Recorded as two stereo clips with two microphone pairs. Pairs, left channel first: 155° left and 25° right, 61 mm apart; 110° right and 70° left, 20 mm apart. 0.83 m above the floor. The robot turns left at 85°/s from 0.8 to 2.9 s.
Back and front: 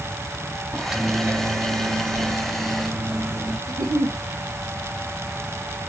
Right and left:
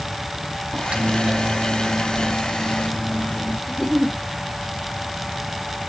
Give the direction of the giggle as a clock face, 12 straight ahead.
1 o'clock.